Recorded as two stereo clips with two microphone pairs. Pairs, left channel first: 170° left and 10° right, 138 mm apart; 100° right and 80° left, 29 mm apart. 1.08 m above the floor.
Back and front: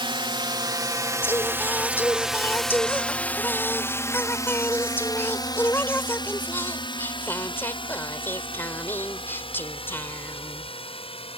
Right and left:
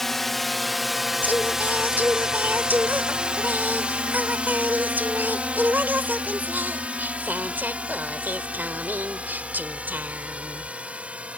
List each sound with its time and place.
0.0 s a drone: 20° right; by 11.4 s 125° left
1.2 s singing: 95° left